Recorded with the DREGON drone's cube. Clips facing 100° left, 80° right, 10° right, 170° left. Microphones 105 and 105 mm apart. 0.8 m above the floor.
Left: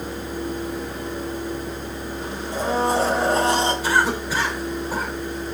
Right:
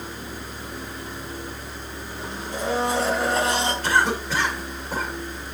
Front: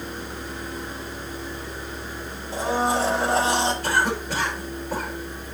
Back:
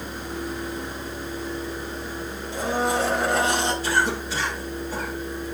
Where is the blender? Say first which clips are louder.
Left 3 dB, front 1 dB; 45° left, 4.5 m.